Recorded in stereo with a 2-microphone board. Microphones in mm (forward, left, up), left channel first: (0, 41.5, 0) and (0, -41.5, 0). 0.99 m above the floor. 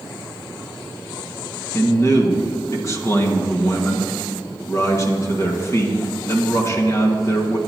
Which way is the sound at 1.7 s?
35° left (ahead or behind).